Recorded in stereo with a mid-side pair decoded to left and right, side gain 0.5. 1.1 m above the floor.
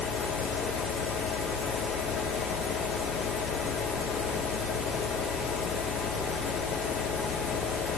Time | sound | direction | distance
0.0 | a fan | 60° left | 2 m